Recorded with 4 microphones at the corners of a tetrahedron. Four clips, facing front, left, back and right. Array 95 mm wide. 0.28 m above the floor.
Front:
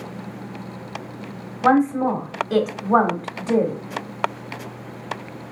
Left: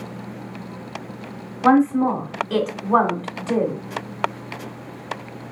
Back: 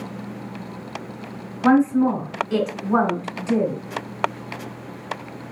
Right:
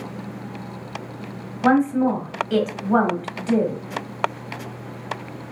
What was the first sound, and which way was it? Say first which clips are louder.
A woman speaking: left 2 dB, back 1 dB; 10° left.